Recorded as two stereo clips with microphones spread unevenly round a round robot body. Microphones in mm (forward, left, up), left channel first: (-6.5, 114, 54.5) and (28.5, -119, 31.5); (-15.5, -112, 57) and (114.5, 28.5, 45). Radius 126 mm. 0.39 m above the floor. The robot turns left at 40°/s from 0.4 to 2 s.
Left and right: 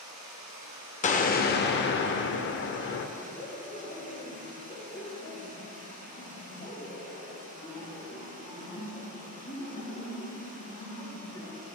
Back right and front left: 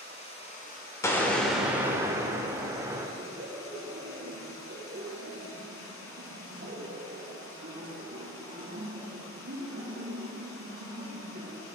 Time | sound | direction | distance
0.0 | running water | 75° right | 1.8 m
1.0 | an explosion | 150° left | 0.8 m
3.2 | laughter | 50° left | 2.5 m